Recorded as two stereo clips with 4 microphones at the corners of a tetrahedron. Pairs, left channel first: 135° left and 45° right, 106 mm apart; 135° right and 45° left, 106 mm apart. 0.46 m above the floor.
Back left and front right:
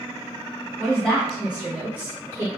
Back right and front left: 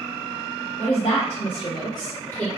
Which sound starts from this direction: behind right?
A woman speaking, at 0.8 s.